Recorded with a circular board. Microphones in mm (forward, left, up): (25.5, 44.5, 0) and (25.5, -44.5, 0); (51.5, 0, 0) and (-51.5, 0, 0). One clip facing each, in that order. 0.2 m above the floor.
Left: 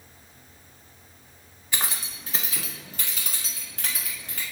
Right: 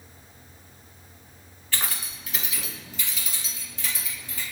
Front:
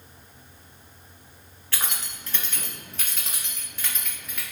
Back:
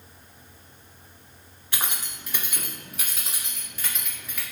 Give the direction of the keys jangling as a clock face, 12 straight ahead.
7 o'clock.